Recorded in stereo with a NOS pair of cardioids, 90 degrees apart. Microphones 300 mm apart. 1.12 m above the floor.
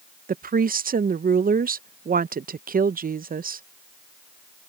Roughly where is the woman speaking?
Ahead right.